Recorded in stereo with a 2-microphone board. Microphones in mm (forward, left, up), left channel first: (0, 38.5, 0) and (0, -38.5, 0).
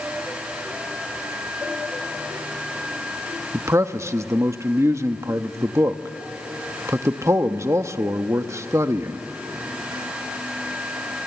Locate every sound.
3.5 s a man speaking: 40° right (ahead or behind), 0.9 m